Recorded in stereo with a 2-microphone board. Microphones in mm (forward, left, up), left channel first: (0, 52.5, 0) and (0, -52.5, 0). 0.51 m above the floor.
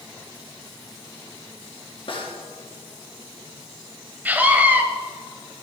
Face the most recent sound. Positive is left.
turn(degrees=-15)  # may be behind; listen again after turning